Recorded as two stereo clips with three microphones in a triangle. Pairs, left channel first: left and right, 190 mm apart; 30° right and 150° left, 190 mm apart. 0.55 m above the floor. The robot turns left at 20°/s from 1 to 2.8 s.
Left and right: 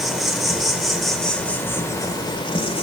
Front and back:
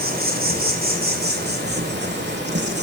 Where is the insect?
Straight behind, 1.6 m; by 2.9 s 145° left, 1.6 m.